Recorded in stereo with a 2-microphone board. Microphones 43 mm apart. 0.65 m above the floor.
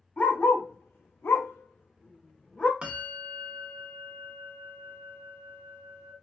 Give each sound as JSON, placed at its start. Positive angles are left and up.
{"t": 0.2, "sound": "a dog barking", "side_deg": 45, "distance_m": 0.8}
{"t": 2.8, "sound": "a bell", "side_deg": -25, "distance_m": 0.5}